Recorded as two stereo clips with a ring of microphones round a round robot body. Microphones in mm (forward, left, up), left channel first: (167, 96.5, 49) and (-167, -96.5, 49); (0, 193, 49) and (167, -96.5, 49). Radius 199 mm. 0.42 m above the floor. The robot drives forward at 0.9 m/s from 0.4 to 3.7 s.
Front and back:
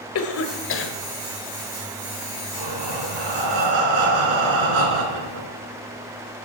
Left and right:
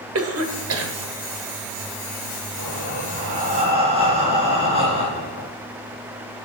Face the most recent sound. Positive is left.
turn(degrees=-135)